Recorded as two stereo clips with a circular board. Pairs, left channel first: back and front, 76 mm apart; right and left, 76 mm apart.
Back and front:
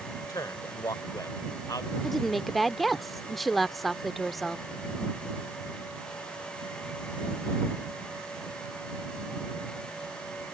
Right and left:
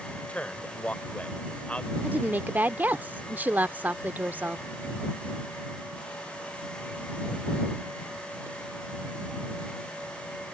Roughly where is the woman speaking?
Left.